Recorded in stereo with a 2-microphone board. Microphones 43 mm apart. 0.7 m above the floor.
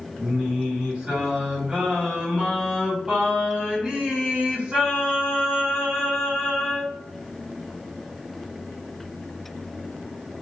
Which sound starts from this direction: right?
Singing, at 0.2 s.